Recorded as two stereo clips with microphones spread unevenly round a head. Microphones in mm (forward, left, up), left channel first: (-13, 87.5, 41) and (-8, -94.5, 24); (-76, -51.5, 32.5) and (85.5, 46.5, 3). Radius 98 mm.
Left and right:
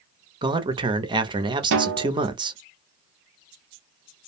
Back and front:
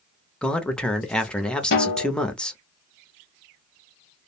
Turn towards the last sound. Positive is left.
turn(degrees=-110)